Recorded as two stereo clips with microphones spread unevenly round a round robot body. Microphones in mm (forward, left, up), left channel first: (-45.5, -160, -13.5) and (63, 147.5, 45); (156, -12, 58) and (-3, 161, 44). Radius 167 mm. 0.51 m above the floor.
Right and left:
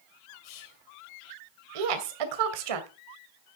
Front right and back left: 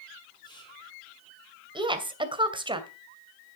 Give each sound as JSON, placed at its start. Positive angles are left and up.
{"t": 0.4, "sound": "whispering", "azimuth_deg": -120, "distance_m": 1.9}
{"t": 1.8, "sound": "a woman speaking", "azimuth_deg": 65, "distance_m": 2.5}